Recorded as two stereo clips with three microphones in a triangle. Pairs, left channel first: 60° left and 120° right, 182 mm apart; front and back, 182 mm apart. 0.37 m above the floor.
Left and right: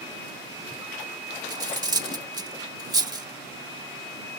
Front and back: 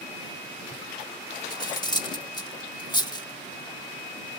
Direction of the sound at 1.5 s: 60° right.